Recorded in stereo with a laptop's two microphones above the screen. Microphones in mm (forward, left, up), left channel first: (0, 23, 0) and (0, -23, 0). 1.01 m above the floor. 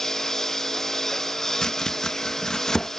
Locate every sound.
0.0 s a lawn mower: 10° left (ahead or behind)
1.6 s chopping: 15° left (ahead or behind)